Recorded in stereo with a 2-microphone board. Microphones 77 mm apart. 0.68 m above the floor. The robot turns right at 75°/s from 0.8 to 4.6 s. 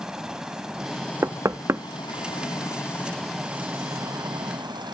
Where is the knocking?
40° right (ahead or behind); by 1.8 s 35° right (ahead or behind).